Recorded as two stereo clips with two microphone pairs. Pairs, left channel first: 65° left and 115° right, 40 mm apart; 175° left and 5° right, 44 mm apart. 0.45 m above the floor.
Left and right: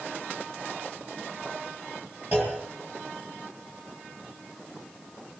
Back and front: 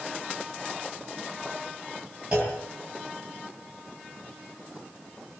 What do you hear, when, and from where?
2.3 s a clunk: 70° right, 7.5 m